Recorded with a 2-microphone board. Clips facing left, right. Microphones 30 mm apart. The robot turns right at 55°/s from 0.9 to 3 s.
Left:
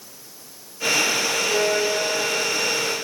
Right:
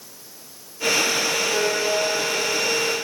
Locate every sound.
1.5 s a violin: 105° left, 6.5 m; by 2.9 s 175° right, 6.5 m